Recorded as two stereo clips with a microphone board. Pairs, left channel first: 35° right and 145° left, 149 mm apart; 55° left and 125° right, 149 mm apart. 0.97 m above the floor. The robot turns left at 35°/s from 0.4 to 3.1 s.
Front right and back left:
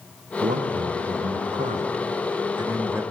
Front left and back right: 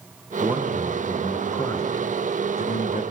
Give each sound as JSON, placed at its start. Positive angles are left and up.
{"t": 0.4, "sound": "a man speaking", "azimuth_deg": 165, "distance_m": 0.6}